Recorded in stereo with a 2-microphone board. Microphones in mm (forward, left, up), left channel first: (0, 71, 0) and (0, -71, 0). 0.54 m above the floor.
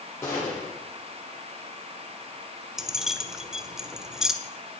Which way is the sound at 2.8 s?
5° right (ahead or behind).